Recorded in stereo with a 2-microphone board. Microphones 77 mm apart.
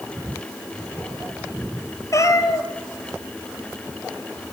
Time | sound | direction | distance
2.1 | a cat meowing | 45° left (ahead or behind) | 1.0 m